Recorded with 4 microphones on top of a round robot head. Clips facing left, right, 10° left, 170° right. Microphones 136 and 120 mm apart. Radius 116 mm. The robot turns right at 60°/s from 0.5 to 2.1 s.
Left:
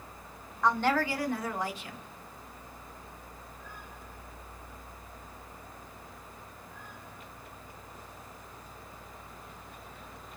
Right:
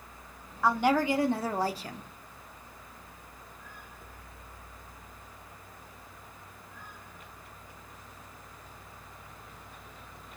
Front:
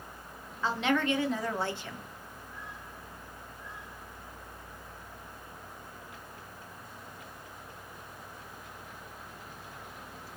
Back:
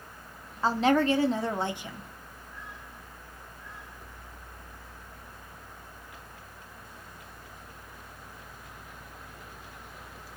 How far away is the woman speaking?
About 0.6 m.